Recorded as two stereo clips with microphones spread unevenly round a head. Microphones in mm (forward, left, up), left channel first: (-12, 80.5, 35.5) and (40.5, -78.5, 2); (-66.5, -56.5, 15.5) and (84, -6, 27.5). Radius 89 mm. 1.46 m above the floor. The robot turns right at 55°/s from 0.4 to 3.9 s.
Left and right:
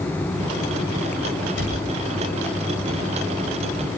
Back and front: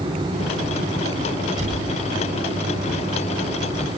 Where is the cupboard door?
85° left, 8.5 m; by 1.8 s 100° left, 8.5 m.